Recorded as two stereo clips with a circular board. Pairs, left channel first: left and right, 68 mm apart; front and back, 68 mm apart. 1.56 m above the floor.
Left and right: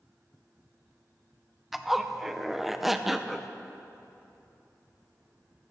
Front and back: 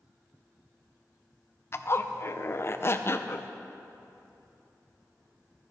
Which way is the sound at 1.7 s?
5° right.